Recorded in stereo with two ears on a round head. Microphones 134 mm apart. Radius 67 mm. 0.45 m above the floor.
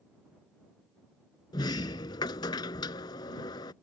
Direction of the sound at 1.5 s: 30° left (ahead or behind).